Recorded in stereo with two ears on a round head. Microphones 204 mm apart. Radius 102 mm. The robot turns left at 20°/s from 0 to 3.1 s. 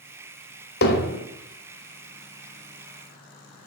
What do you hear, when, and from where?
0.8 s hammering: 45° left (ahead or behind), 1.5 m; by 1.2 s 50° left (ahead or behind), 1.5 m